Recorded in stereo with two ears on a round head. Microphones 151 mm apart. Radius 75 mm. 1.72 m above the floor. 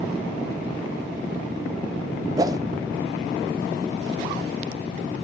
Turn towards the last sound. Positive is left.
turn(degrees=-20)  # may be behind; listen again after turning